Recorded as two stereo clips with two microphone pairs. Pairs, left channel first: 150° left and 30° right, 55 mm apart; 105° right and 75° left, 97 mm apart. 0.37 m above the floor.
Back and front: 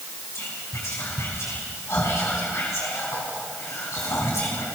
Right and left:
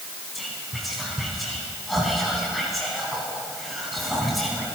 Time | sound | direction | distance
0.3 | whispering | 165° left | 3.5 m